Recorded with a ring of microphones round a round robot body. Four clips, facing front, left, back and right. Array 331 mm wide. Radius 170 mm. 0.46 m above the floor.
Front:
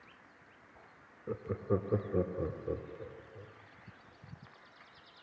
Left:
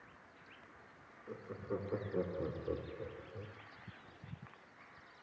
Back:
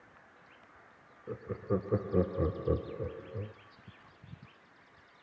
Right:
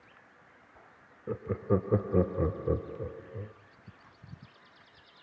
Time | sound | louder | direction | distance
1.3 | laughter | right 12 dB, even | 75° right | 1.3 m